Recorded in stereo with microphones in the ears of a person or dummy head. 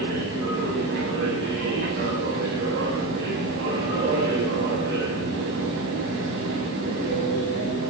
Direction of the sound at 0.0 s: 70° right (ahead or behind).